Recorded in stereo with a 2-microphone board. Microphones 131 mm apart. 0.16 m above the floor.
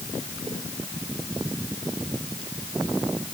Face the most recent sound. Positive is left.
No sound to turn to.